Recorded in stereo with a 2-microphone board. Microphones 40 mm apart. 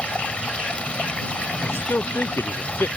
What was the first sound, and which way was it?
Running water, 30° left (ahead or behind).